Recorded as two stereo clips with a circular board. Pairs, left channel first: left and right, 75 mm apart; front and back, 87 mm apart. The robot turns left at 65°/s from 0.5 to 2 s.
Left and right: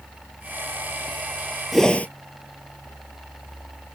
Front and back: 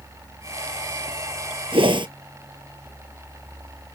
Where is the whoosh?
Straight behind; by 2.1 s 160° left.